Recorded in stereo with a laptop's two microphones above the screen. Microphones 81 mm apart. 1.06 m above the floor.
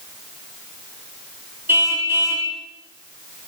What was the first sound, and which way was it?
A car horn, 30° right (ahead or behind).